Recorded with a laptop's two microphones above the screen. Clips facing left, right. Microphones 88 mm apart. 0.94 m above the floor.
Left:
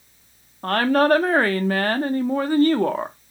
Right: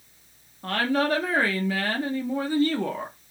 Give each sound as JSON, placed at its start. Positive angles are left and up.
{"t": 0.6, "sound": "a woman speaking", "side_deg": 50, "distance_m": 0.5}